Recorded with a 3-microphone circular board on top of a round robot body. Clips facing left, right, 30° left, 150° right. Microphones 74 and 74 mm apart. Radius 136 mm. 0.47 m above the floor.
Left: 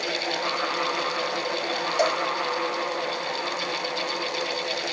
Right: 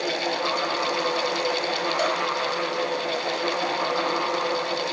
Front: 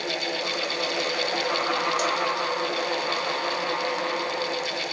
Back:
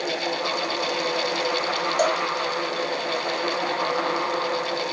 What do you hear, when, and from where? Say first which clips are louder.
2.0 s a cowbell: left 3 dB, back 4 dB; 160° left, 1.7 m